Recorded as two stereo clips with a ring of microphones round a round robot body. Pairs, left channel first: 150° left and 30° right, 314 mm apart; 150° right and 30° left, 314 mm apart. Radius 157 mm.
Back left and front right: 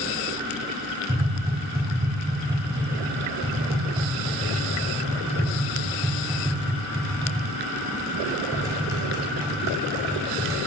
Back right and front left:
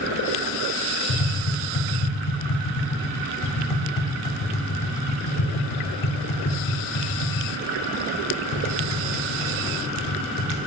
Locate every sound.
1.1 s tapping: 110° right, 0.6 m